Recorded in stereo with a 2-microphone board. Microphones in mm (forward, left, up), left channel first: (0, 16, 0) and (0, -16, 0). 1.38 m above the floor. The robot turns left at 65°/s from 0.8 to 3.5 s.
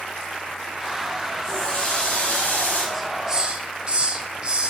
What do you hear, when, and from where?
1.4 s a running tap: 160° left, 7 m; by 2.8 s 65° left, 7 m
2.9 s a hiss: straight ahead, 1.3 m; by 4.7 s 35° right, 1.3 m